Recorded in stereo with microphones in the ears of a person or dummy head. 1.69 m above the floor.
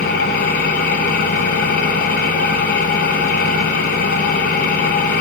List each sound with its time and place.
0.0 s an engine running: 45° left (ahead or behind), 9 m